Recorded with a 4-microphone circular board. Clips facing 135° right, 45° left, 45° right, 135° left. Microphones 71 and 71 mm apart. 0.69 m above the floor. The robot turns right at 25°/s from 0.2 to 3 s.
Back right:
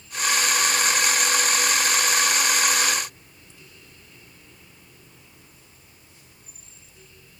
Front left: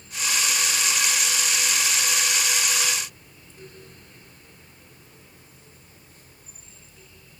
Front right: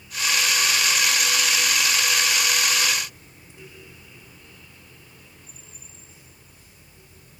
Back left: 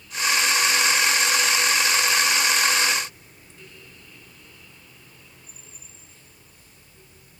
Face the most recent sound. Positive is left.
No sound to turn to.